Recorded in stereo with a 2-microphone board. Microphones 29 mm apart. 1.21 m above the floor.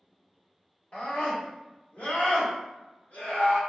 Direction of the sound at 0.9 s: 45° left (ahead or behind).